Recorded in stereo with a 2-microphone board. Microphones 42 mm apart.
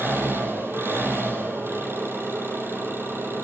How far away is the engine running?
About 4.5 m.